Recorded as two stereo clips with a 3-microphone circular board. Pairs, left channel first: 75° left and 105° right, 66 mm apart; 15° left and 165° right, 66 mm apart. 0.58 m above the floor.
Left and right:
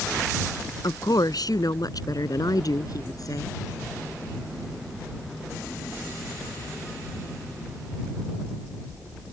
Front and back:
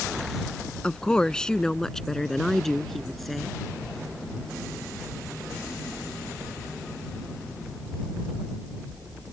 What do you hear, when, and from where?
0.8 s a woman speaking: 95° left; by 3.6 s 105° left